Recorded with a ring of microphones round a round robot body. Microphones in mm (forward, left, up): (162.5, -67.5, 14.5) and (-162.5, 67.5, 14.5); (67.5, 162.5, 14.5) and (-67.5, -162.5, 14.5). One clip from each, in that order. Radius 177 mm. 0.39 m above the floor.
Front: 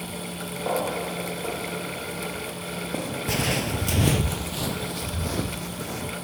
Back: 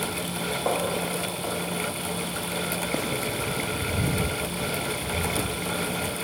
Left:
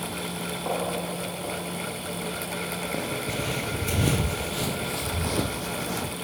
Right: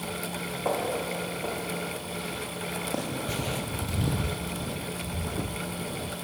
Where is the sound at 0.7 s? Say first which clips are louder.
Front 2 dB, right 1 dB; straight behind, 9.5 m; by 3.1 s 175° left, 6.5 m.